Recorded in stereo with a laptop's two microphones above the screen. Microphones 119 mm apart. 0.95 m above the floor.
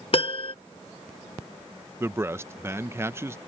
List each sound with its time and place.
0.1 s a piano: 50° left (ahead or behind)
2.0 s a man speaking: 20° right (ahead or behind)